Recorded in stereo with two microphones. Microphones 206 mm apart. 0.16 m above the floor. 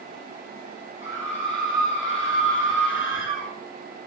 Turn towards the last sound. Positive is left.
turn(degrees=70)  # may be behind; listen again after turning